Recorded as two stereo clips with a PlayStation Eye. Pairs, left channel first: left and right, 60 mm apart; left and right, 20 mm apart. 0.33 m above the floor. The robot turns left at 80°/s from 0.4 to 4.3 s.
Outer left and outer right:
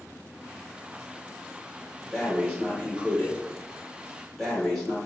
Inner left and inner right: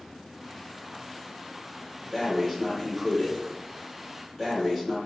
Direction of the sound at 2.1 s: 175° right.